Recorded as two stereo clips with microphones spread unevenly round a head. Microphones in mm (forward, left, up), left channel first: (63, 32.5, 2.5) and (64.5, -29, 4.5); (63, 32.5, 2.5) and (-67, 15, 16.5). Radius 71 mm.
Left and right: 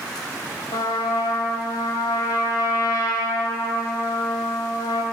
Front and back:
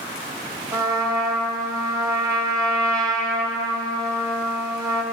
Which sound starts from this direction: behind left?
A trumpet, at 0.7 s.